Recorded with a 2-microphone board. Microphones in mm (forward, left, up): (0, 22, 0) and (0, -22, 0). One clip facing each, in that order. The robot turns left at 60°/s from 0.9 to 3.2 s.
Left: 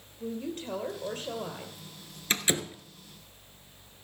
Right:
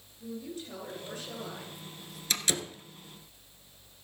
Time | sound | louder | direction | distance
0.2 | a woman speaking | left 5 dB | 70° left | 2.5 m
2.3 | a door slam | left 3 dB | 30° left (ahead or behind) | 1.2 m